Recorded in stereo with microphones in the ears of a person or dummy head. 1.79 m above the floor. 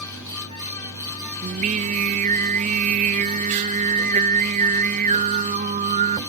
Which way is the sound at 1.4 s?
40° right (ahead or behind).